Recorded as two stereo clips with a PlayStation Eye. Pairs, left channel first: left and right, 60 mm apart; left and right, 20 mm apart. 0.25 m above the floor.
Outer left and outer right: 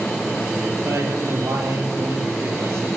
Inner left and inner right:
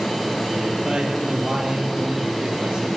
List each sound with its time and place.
0.8 s a man speaking: 55° right (ahead or behind), 6 m; by 2.9 s 45° right (ahead or behind), 6.5 m